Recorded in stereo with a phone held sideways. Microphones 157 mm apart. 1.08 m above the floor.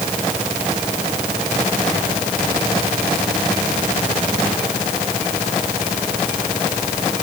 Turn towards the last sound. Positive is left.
No sound to turn to.